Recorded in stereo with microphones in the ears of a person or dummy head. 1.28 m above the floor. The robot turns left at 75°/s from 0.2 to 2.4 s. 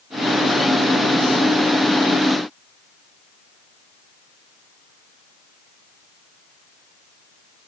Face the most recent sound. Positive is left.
No sound to turn to.